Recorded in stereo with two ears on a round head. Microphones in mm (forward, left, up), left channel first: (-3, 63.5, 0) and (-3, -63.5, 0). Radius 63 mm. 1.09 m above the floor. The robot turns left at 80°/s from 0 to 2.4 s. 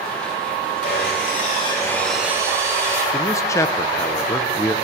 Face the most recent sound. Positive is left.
turn(degrees=20)  # may be behind; listen again after turning